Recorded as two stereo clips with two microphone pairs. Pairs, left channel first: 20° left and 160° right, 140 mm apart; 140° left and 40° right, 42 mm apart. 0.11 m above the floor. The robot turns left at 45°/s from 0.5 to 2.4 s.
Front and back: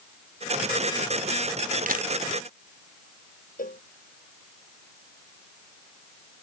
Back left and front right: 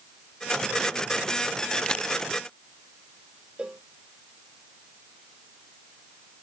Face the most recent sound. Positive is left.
turn(degrees=30)